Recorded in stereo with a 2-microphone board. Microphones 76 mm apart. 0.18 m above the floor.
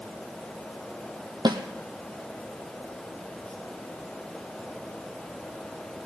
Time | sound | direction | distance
1.4 | a snare drum | 80° right | 1.3 m